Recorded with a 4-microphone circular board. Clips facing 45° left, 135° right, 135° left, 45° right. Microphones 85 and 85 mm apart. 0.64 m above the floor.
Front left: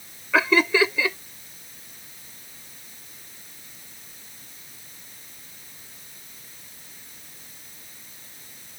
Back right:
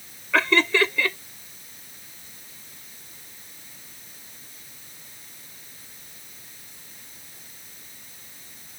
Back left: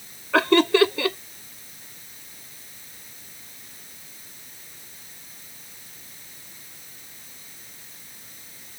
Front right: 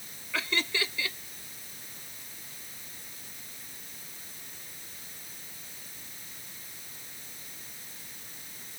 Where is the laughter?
125° left.